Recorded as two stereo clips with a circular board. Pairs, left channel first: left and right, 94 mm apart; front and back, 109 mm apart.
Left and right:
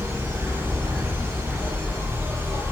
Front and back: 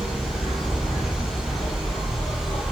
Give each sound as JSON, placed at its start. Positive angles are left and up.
{"t": 0.0, "sound": "an insect", "azimuth_deg": 15, "distance_m": 1.4}